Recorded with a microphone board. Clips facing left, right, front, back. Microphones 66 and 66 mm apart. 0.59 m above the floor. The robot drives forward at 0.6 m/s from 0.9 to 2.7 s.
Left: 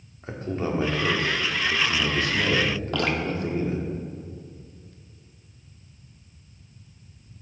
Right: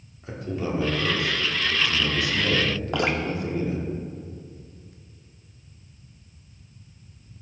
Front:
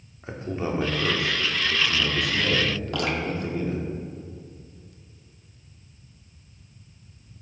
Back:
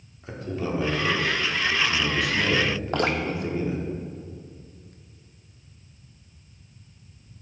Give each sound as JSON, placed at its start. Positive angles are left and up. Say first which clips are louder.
{"t": 0.2, "sound": "a man speaking", "louder": "left 1 dB, front 1 dB", "azimuth_deg": 50, "distance_m": 1.5}
{"t": 2.9, "sound": "dripping", "louder": "right 2 dB, back 4 dB", "azimuth_deg": -155, "distance_m": 0.7}